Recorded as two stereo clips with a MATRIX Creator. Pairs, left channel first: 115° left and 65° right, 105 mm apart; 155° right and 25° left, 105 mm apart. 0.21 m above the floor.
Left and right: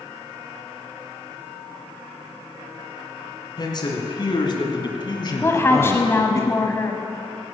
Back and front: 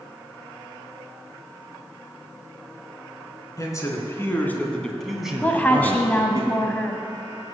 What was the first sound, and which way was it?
A man speaking, 150° left.